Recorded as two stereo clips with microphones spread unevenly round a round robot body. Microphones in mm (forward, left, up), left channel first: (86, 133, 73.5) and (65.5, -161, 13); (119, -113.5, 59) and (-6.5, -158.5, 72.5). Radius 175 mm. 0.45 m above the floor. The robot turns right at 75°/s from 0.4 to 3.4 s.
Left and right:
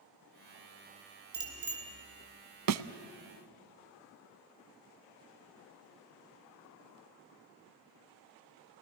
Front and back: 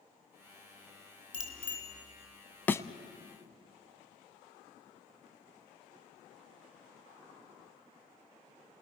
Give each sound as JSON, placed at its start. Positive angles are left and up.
{"t": 1.3, "sound": "a bicycle bell", "azimuth_deg": -80, "distance_m": 5.0}
{"t": 2.7, "sound": "a thud", "azimuth_deg": -60, "distance_m": 0.8}